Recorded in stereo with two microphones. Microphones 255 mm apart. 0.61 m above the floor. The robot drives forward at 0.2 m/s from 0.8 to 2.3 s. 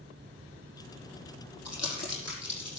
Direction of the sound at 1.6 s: 80° left.